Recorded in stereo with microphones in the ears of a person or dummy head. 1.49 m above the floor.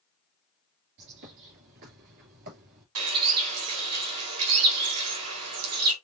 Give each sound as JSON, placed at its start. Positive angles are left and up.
{"t": 1.0, "sound": "a bird", "side_deg": -55, "distance_m": 2.5}
{"t": 3.0, "sound": "a bird", "side_deg": -80, "distance_m": 2.5}